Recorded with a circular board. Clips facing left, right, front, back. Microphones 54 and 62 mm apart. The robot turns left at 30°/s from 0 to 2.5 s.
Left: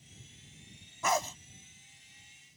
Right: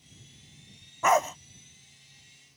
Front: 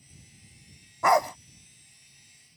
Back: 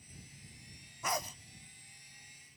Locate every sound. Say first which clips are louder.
1.0 s a dog barking: right 7 dB, front 15 dB; 25° right; by 1.4 s 35° right